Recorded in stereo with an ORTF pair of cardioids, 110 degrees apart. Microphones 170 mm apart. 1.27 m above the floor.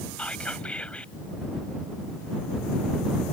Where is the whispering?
5° left.